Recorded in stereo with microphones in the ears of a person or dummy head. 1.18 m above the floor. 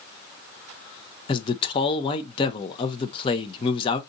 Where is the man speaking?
25° left (ahead or behind), 0.5 m.